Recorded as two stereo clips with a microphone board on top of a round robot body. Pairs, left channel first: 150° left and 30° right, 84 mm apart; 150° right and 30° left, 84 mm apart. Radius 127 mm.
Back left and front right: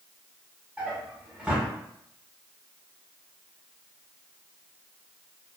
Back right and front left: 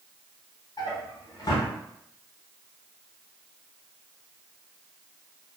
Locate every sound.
0.8 s a drawer: 110° right, 0.8 m